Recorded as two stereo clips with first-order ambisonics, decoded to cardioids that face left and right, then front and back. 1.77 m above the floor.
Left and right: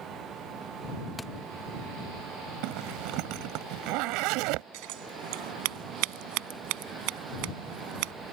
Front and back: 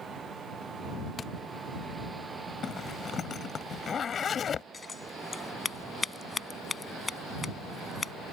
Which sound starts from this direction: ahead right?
A zipper, at 2.6 s.